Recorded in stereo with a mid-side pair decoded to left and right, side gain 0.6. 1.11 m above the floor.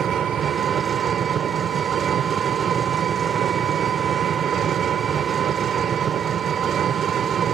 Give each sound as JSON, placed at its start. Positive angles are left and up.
{"t": 0.0, "sound": "an engine running", "azimuth_deg": -50}